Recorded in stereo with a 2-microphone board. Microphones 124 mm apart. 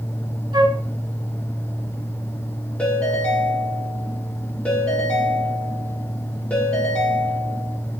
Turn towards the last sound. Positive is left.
turn(degrees=10)  # may be behind; listen again after turning